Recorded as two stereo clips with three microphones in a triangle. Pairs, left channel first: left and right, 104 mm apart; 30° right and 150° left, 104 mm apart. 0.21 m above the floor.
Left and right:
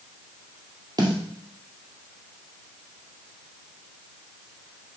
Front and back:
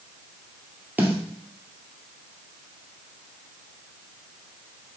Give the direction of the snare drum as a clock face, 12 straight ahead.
5 o'clock.